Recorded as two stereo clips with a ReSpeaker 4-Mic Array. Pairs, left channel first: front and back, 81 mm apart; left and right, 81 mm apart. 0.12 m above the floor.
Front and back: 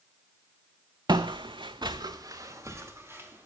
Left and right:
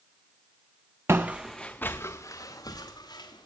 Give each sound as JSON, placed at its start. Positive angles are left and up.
{"t": 1.1, "sound": "footsteps", "azimuth_deg": -150, "distance_m": 0.5}